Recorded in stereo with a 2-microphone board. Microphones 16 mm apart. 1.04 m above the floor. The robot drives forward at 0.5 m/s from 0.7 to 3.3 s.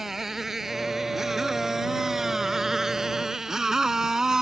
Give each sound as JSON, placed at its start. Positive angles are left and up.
{"t": 0.0, "sound": "a motorcycle", "side_deg": -20}